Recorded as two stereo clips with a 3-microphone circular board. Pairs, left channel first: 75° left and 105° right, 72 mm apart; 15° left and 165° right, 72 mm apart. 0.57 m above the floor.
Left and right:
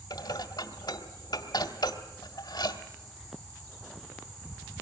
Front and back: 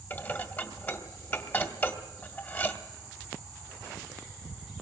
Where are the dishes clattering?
75° left, 1.7 m.